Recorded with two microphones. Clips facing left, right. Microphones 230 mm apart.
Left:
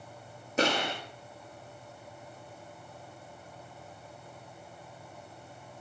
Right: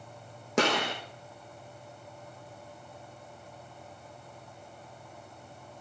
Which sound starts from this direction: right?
A gunshot, at 0.6 s.